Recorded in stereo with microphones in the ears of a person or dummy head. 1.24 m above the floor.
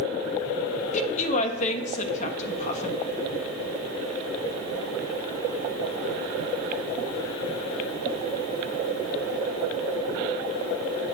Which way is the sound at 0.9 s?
45° left (ahead or behind).